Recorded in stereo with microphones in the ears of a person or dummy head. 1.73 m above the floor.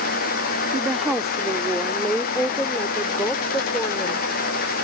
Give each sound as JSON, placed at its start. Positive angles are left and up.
{"t": 0.7, "sound": "a woman speaking", "side_deg": -5}